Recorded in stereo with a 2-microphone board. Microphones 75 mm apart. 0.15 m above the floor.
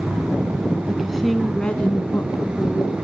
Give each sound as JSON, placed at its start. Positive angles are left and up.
{"t": 0.9, "sound": "a woman speaking", "side_deg": -10, "distance_m": 1.7}